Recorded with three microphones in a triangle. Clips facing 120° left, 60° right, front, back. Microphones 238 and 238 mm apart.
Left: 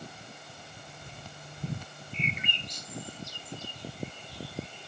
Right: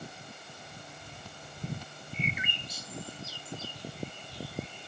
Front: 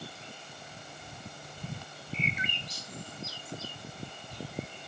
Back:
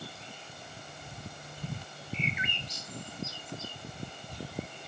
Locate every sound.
2.1 s a bird: 20° left, 1.0 m